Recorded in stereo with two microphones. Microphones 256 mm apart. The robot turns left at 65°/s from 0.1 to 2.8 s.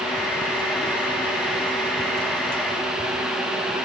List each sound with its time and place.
Only background noise.